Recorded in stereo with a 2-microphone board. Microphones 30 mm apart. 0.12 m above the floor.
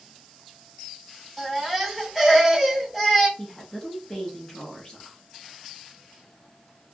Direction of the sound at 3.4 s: 25° left (ahead or behind).